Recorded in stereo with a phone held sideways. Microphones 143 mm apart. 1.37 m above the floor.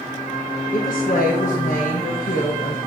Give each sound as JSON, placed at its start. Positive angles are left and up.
{"t": 0.7, "sound": "a woman speaking", "side_deg": 60, "distance_m": 1.3}